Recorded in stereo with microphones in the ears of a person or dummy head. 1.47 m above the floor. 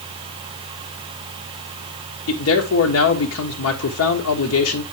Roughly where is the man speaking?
Left.